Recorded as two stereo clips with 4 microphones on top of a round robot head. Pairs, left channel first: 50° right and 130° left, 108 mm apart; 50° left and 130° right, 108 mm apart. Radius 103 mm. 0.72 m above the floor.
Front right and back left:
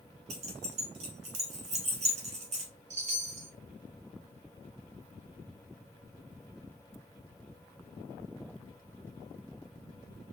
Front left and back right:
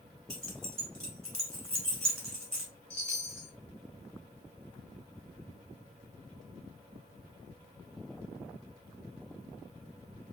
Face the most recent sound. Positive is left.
turn(degrees=130)